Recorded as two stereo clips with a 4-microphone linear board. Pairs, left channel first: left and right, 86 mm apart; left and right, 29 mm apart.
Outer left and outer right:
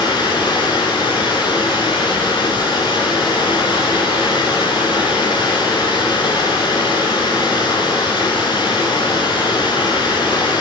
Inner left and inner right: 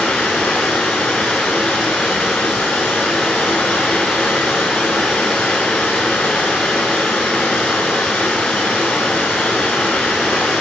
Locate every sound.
0.0 s running water: 55° left (ahead or behind), 5 m